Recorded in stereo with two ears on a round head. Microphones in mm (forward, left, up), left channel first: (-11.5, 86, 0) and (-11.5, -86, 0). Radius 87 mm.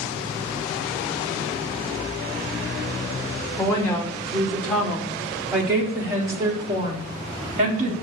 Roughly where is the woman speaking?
Centre.